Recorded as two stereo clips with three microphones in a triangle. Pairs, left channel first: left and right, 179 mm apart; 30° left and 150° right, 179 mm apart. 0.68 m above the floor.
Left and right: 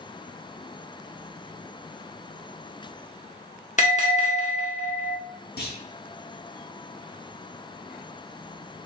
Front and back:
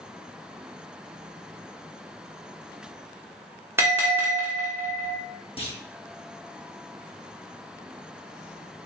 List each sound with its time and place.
3.8 s a bell: 135° left, 1.1 m
5.6 s a clunk: 85° left, 0.9 m